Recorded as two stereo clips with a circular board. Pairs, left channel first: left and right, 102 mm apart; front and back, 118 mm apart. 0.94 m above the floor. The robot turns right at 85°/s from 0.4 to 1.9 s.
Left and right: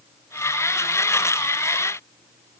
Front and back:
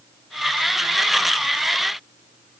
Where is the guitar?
No guitar in this recording.